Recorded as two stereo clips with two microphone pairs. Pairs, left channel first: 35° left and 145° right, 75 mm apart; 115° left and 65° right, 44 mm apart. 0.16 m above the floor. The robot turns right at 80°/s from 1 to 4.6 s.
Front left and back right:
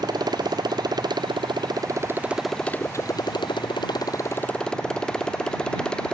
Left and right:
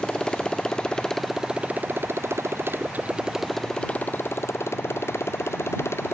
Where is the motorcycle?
170° right; by 6.1 s 115° left.